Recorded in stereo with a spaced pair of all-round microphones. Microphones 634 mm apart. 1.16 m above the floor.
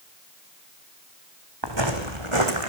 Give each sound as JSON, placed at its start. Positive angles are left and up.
{"t": 1.6, "sound": "footsteps", "side_deg": -40, "distance_m": 3.5}